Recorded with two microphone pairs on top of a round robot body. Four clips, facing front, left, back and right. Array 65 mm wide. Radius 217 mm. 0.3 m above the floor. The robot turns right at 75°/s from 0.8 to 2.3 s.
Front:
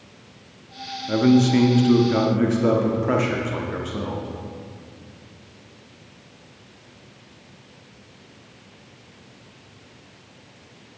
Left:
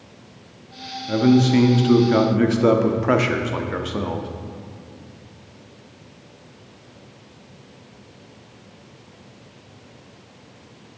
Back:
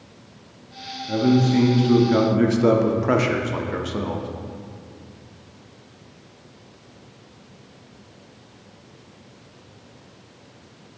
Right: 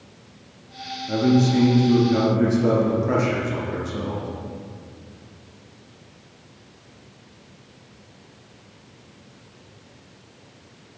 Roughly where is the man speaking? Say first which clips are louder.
Left 3 dB, front 2 dB; ahead.